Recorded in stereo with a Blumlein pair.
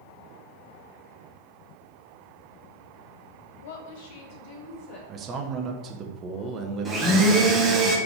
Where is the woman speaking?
55° left, 0.8 m; by 5.0 s 40° left, 2 m.